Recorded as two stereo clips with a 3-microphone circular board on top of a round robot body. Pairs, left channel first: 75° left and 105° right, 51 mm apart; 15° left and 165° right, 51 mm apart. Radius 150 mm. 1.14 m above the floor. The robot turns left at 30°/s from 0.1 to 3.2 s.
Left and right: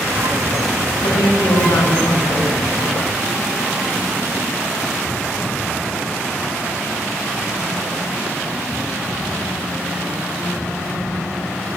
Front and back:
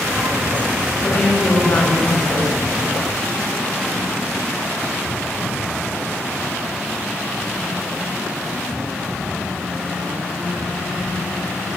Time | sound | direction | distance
1.0 | a woman speaking | 90° left | 8 m